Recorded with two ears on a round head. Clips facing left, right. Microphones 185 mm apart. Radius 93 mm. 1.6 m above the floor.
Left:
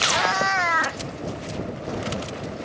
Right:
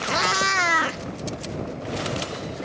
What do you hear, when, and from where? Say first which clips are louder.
0.1 s a cat meowing: left 1 dB; 40° right (ahead or behind); by 2.6 s 25° right (ahead or behind)